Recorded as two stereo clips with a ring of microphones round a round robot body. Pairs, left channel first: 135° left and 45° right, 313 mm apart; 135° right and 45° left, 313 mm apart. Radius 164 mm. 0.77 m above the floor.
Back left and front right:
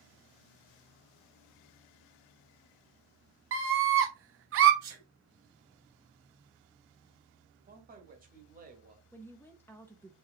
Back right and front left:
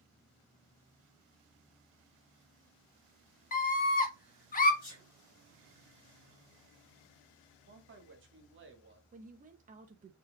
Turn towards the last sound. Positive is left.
turn(degrees=60)